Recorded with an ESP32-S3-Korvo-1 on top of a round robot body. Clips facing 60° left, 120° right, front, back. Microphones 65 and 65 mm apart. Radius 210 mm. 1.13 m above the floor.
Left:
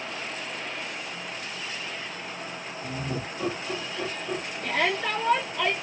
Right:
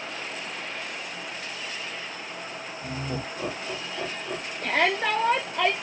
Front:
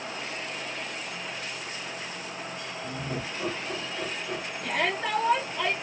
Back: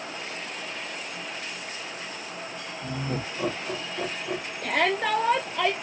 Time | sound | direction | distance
2.8 | laughter | 170° left | 1.8 m
4.6 | a shout | 155° right | 0.9 m